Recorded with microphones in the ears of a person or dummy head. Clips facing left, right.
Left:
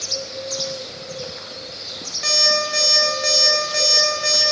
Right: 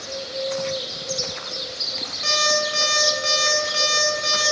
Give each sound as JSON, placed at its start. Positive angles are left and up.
{"t": 2.2, "sound": "an alarm clock", "side_deg": 20, "distance_m": 3.5}